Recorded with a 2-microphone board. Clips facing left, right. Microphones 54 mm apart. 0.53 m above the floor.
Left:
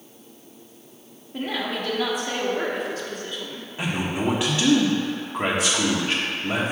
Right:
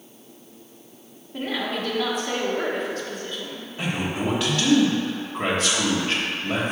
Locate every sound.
1.3 s a woman speaking: 5° left (ahead or behind), 1.1 m
3.8 s a man speaking: 20° left (ahead or behind), 1.2 m